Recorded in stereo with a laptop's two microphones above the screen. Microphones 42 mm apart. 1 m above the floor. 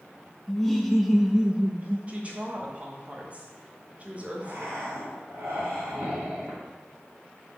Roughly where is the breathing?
Right.